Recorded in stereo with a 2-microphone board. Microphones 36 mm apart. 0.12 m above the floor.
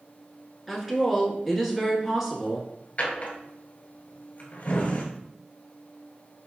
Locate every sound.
0.7 s a woman speaking: 5° right (ahead or behind), 1.5 m
3.0 s a drawer: 40° left (ahead or behind), 1.1 m